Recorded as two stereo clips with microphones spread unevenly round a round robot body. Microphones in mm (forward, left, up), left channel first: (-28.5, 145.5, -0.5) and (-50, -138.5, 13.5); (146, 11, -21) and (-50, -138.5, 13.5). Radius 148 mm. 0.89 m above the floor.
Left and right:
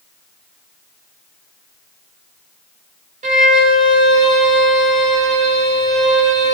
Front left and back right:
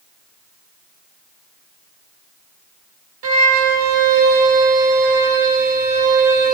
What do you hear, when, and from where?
3.2 s a violin: 160° right, 1.1 m